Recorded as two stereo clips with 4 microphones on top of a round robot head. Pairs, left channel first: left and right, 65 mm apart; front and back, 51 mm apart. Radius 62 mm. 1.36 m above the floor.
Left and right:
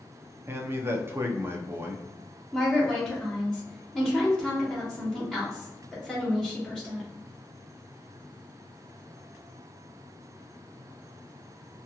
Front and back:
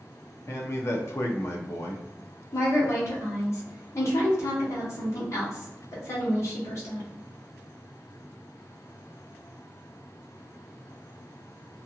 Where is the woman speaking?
10° right, 1.7 m.